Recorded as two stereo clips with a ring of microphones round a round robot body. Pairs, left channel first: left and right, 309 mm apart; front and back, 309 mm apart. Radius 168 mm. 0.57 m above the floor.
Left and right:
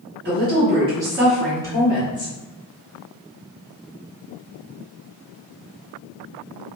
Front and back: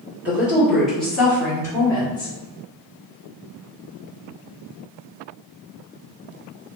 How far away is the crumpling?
I don't hear crumpling.